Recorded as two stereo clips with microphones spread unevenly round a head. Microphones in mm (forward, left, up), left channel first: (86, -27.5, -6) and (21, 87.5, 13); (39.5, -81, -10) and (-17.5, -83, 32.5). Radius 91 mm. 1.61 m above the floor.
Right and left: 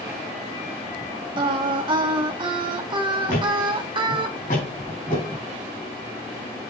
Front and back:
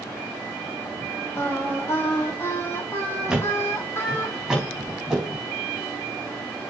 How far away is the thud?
About 4 m.